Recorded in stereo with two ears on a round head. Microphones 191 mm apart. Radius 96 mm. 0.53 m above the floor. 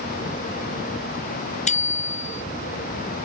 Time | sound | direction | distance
1.7 | a bicycle bell | 35° left (ahead or behind) | ?